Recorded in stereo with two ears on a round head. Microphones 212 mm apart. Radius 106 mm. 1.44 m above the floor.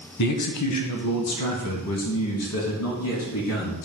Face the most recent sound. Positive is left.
turn(degrees=55)  # may be behind; listen again after turning